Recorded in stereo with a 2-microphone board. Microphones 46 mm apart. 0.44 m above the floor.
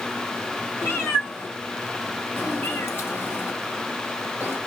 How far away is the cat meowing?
About 1.2 m.